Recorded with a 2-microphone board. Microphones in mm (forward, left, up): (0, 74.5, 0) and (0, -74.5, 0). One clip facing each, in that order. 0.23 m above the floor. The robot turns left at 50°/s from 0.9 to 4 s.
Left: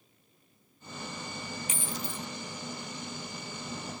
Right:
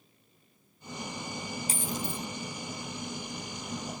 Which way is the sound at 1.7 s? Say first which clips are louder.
Right 5 dB; 35° right (ahead or behind).